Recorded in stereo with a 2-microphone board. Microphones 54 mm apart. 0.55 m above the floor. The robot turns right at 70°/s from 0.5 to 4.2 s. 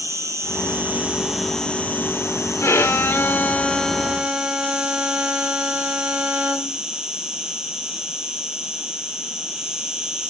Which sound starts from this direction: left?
A violin, at 2.6 s.